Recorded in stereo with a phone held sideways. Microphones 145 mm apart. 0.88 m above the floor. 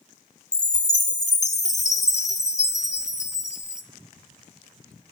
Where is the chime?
50° left (ahead or behind), 0.8 m.